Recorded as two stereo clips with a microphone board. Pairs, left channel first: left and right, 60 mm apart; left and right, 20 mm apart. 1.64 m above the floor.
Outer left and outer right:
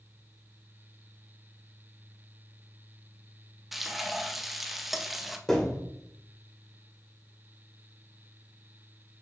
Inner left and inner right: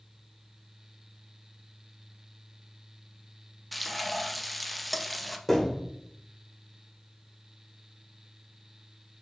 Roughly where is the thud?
Centre.